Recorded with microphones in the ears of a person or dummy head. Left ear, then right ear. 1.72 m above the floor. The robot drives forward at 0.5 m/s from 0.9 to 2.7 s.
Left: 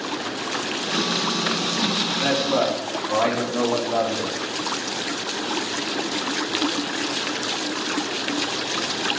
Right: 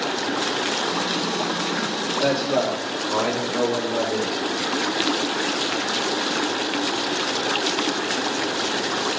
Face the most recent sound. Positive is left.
turn(degrees=45)  # may be behind; listen again after turning